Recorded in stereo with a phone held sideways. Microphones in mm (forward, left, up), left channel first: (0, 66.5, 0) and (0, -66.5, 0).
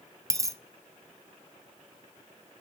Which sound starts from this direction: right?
A dropped coin, at 0.3 s.